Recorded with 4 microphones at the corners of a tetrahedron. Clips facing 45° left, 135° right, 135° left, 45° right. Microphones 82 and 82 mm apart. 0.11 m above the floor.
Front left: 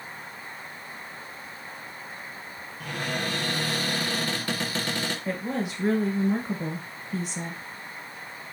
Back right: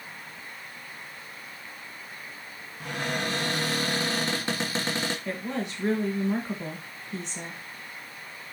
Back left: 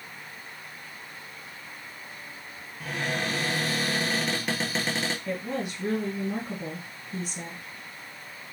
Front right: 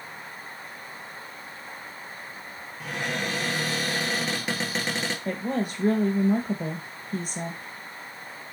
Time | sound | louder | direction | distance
2.8 | a cupboard door | back right 1 dB, even | 135° right | 1.5 m
5.2 | a woman speaking | front left 2 dB, front right 3 dB | 40° right | 1.5 m